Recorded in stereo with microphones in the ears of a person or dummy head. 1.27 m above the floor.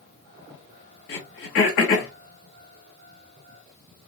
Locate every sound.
1.1 s throat clearing: 55° left (ahead or behind), 1.9 m